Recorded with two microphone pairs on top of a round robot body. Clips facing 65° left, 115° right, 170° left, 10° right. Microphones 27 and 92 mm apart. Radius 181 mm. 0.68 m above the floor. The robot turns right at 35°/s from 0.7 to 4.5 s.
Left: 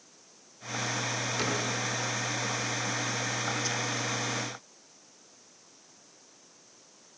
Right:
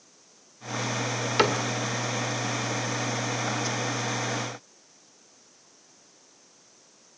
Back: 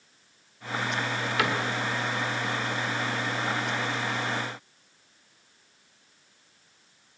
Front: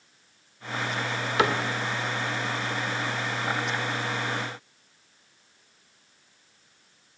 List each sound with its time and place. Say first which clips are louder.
1.4 s a cupboard door: right 9 dB, front 4 dB; 75° right, 1.6 m; by 1.6 s 65° right, 1.6 m